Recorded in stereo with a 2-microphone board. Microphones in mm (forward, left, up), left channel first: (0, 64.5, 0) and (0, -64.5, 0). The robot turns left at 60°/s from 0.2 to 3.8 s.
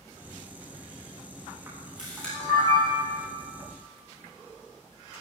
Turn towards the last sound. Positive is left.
turn(degrees=80)